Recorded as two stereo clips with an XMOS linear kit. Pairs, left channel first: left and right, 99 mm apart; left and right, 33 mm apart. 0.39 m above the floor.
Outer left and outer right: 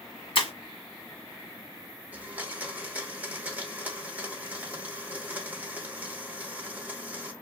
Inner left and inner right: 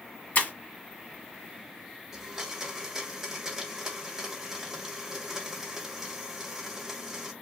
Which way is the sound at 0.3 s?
60° left (ahead or behind).